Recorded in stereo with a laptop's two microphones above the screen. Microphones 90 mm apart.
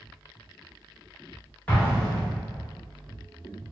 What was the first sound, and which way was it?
An explosion, 15° left (ahead or behind).